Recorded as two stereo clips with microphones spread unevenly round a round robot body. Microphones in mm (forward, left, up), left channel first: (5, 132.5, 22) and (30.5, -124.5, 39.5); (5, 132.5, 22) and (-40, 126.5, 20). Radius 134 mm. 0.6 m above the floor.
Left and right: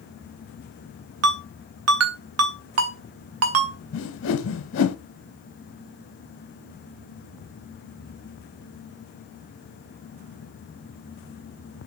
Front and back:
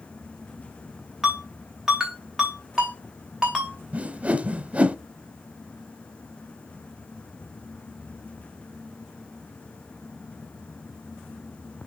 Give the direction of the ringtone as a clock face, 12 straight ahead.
3 o'clock.